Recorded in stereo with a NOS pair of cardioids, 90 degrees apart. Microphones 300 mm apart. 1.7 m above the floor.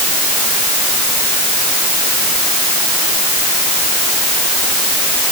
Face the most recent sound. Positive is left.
No sound to turn to.